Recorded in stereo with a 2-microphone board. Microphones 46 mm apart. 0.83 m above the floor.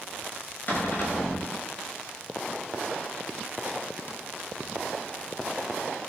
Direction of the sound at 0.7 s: 45° left (ahead or behind).